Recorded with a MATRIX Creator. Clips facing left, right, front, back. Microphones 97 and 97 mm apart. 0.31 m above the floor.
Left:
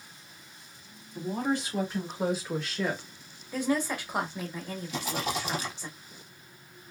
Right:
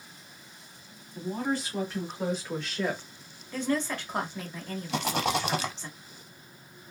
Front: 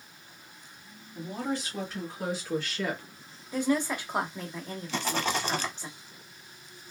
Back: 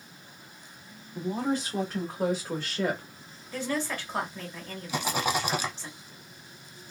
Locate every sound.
1.1 s a woman speaking: 155° left, 1.8 m; by 3.0 s 165° right, 1.1 m
3.5 s a woman speaking: 30° left, 0.9 m
4.9 s a rattle: 105° right, 0.6 m